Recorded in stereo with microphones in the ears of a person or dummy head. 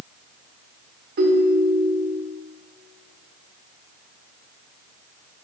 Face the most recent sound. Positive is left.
turn(degrees=-50)  # may be behind; listen again after turning